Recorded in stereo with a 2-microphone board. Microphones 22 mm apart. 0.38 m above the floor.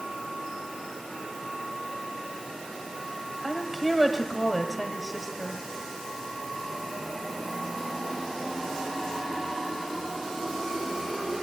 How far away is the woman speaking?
About 1.6 m.